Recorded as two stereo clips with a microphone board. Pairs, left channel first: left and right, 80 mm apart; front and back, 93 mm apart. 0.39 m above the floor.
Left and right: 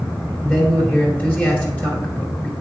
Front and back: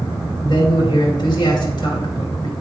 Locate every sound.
0.4 s a man speaking: 25° left, 2.5 m